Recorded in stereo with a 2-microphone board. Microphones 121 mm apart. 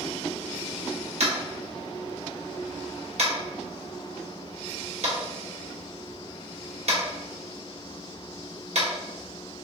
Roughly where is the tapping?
Right.